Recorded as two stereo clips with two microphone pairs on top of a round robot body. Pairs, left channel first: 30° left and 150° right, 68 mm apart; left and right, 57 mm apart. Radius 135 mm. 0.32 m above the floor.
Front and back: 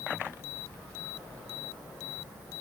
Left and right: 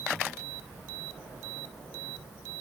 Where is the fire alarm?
I don't hear a fire alarm.